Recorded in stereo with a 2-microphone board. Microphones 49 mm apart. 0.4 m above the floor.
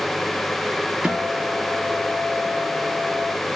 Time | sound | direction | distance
1.0 | a guitar | 10° right (ahead or behind) | 1.9 m